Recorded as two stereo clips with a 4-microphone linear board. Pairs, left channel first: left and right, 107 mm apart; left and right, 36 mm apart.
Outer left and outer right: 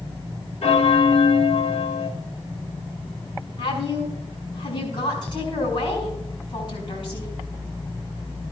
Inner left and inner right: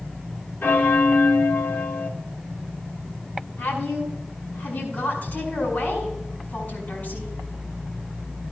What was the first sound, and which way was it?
A bell, 70° left (ahead or behind).